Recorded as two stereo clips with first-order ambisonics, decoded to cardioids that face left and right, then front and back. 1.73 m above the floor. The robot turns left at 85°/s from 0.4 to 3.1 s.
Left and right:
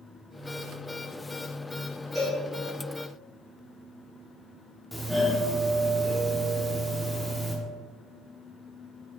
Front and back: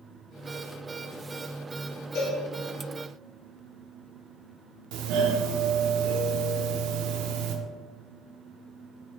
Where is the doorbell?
Straight behind, 0.8 m.